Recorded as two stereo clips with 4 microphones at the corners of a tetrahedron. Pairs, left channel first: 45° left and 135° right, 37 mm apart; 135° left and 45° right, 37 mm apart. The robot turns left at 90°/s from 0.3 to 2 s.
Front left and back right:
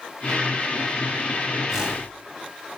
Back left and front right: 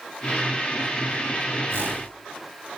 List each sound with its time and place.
1.7 s a whoosh: 55° right, 2 m; by 2.1 s 85° right, 2 m